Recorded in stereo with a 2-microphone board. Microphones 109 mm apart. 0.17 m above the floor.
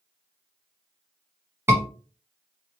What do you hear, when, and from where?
1.7 s a scream: 25° right (ahead or behind), 1.2 m